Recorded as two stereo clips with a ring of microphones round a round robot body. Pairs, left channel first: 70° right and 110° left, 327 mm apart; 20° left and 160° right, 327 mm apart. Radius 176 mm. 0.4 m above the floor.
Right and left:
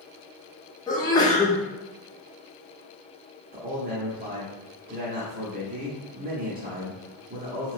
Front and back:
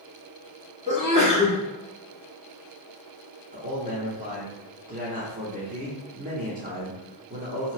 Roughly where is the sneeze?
Behind right.